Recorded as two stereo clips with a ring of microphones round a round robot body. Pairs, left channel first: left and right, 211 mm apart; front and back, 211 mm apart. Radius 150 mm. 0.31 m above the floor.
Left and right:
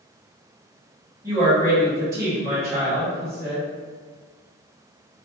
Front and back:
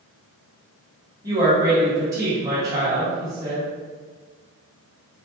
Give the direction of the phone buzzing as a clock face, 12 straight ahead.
I don't hear a phone buzzing.